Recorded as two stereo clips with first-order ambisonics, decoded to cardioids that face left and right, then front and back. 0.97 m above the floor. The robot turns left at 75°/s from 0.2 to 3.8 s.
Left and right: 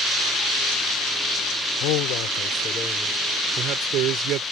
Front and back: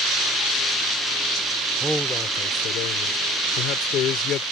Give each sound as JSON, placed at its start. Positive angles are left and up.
{"t": 1.8, "sound": "a man speaking", "azimuth_deg": 100}